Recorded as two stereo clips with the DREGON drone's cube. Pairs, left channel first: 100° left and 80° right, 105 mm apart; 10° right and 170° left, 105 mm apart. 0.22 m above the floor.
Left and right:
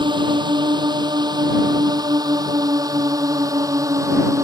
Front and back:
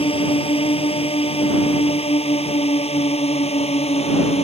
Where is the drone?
35° right; by 4.4 s 20° right.